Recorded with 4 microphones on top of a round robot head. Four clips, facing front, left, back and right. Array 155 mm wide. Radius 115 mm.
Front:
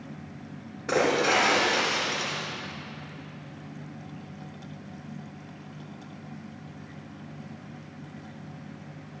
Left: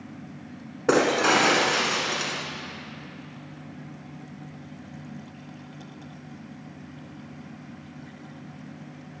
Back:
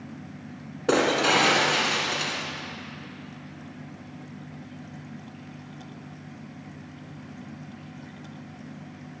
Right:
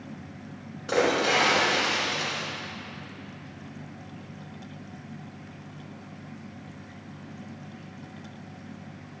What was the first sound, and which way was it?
Breaking glass, 115° left.